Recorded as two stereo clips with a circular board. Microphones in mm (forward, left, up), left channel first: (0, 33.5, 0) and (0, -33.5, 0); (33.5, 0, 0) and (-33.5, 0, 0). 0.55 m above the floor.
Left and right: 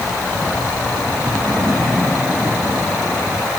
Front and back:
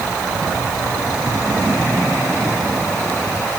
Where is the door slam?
I don't hear a door slam.